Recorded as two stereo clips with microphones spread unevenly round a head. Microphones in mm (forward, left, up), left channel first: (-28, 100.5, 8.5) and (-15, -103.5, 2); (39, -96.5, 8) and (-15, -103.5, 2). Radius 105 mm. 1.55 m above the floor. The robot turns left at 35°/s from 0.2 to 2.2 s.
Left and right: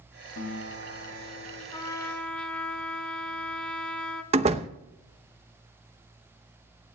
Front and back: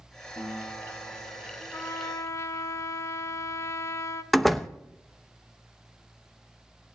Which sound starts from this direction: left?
A guitar, at 0.3 s.